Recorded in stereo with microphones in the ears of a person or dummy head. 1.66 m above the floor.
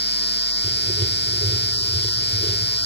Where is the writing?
15° right (ahead or behind), 1.4 m.